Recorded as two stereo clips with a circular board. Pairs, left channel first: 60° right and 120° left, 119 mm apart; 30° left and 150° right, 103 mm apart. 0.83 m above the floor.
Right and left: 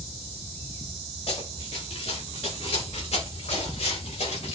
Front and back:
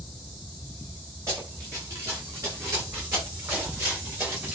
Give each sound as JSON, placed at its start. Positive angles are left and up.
{"t": 1.3, "sound": "running footsteps", "azimuth_deg": -90, "distance_m": 6.5}